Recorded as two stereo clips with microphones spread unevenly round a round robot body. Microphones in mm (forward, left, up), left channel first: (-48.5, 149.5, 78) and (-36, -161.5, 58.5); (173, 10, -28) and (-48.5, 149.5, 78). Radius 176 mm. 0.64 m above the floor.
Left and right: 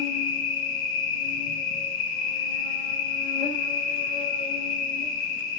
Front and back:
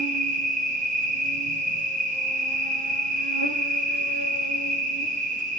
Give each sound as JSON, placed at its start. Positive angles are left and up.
{"t": 0.0, "sound": "an insect", "azimuth_deg": 80, "distance_m": 1.1}